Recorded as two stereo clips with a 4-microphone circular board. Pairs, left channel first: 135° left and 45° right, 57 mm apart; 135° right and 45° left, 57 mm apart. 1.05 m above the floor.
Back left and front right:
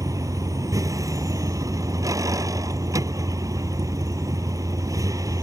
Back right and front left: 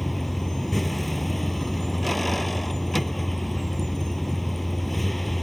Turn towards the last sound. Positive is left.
turn(degrees=-45)